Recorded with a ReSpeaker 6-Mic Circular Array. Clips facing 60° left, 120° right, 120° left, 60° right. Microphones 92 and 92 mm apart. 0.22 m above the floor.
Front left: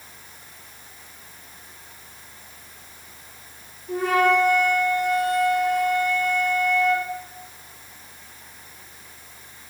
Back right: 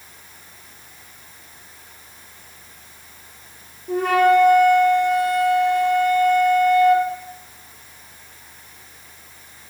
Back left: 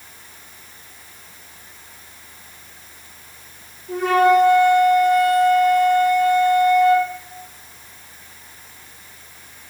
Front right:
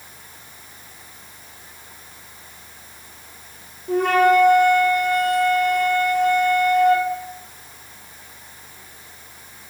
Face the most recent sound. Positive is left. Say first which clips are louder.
# back right 4 dB, back left 1 dB
turn(degrees=-90)